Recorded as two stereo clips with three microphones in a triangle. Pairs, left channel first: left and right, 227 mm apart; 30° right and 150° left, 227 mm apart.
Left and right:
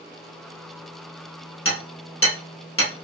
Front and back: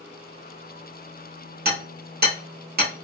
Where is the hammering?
105° left, 1.7 m.